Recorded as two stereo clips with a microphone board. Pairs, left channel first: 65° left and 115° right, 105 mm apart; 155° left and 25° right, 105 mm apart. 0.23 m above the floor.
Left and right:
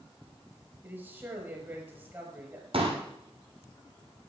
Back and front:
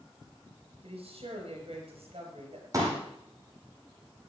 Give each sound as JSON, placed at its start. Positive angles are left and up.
{"t": 0.8, "sound": "a woman speaking", "azimuth_deg": -40, "distance_m": 5.5}
{"t": 2.7, "sound": "a pop", "azimuth_deg": -80, "distance_m": 5.5}